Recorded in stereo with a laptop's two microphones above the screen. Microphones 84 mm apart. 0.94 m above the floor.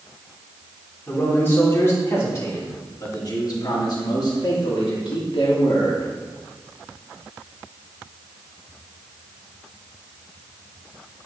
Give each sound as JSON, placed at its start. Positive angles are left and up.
{"t": 1.1, "sound": "a man speaking", "side_deg": 20, "distance_m": 3.0}